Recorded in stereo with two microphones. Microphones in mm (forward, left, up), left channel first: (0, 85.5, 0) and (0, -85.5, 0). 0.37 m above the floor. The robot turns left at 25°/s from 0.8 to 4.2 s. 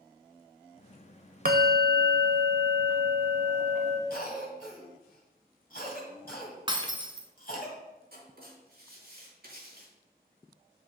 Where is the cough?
60° left (ahead or behind), 2.5 m.